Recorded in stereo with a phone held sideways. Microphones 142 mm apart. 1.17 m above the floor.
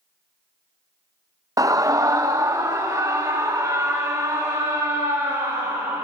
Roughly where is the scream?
Right.